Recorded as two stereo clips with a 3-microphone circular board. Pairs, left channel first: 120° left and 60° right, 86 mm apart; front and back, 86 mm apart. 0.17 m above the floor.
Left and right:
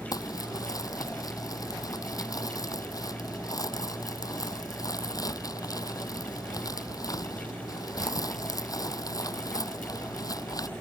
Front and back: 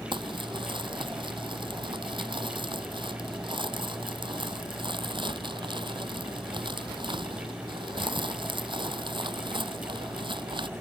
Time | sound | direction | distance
0.1 | crumpling | 165° left | ?